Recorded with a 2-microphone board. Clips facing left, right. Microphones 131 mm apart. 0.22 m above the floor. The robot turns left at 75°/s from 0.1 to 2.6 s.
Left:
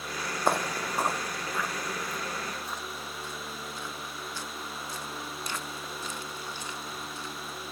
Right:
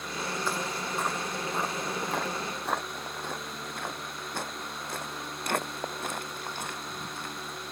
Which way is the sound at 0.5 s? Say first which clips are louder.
Left 4 dB; 55° left (ahead or behind).